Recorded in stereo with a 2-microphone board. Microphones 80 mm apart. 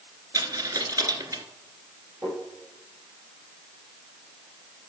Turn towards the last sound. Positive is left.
turn(degrees=-25)  # may be behind; listen again after turning